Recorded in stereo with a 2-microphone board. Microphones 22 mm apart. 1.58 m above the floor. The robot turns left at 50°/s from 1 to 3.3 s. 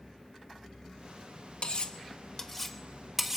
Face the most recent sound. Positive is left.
turn(degrees=-15)  # may be behind; listen again after turning